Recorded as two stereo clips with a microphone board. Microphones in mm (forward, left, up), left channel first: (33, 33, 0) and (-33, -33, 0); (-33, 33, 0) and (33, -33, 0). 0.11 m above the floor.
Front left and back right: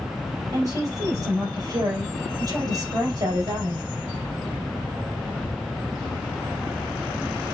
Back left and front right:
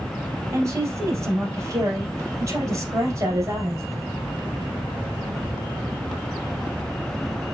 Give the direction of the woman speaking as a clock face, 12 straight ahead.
3 o'clock.